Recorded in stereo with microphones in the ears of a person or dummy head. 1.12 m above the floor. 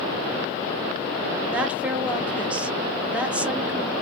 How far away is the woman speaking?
About 0.7 m.